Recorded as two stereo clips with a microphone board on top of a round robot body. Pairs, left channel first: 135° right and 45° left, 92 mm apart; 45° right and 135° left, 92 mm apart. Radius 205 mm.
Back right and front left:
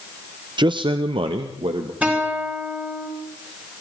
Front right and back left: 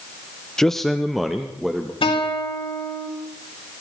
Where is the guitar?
30° right, 6 m.